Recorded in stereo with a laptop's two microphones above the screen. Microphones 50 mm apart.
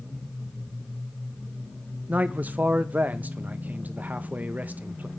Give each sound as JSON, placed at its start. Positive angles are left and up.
{"t": 2.1, "sound": "a man speaking", "side_deg": -35, "distance_m": 0.7}